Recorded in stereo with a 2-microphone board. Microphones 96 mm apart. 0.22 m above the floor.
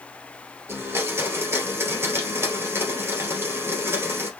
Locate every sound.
0.7 s a blender: 25° right (ahead or behind), 2 m